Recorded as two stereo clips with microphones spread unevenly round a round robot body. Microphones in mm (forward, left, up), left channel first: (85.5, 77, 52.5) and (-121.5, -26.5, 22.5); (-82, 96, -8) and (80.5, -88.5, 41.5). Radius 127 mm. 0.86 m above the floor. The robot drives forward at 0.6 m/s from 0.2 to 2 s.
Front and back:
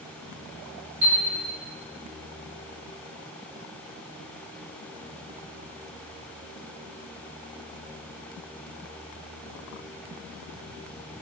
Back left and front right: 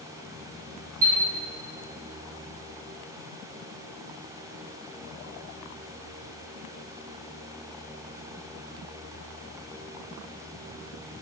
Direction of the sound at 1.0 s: 110° right.